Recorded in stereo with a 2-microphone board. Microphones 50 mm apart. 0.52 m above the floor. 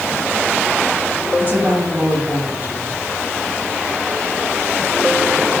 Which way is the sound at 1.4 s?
35° right (ahead or behind).